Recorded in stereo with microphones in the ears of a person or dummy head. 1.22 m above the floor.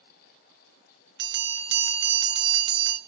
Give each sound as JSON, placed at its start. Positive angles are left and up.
{"t": 1.2, "sound": "a bell", "side_deg": -65, "distance_m": 1.5}